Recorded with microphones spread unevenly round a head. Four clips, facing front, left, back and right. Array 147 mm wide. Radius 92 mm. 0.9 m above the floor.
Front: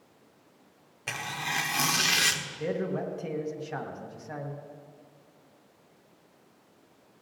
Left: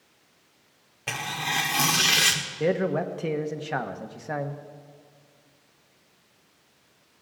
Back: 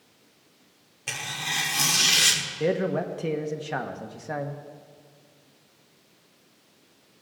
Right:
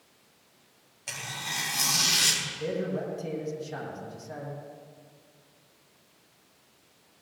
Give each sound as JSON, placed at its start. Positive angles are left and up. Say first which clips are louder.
{"t": 1.1, "sound": "tearing paper", "louder": "left 8 dB, front 1 dB", "azimuth_deg": 85, "distance_m": 0.8}
{"t": 2.6, "sound": "a man speaking", "louder": "left 7 dB, back 6 dB", "azimuth_deg": 130, "distance_m": 1.1}